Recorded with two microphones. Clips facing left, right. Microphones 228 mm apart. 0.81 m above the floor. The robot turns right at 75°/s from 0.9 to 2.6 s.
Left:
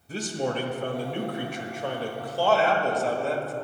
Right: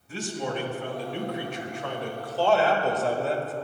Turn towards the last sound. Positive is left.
turn(degrees=180)